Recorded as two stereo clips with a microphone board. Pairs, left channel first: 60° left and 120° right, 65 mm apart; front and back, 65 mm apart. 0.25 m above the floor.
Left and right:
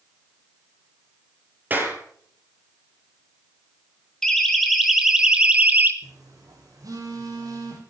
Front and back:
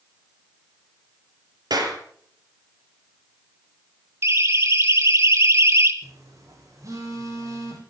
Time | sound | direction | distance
1.7 | a clap | 175° left | 5 m
4.2 | a siren | 140° left | 2.5 m
6.0 | a phone buzzing | 140° right | 6 m